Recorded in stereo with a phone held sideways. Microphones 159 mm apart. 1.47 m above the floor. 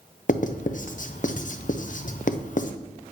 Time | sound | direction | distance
0.3 | writing | 55° left (ahead or behind) | 0.5 m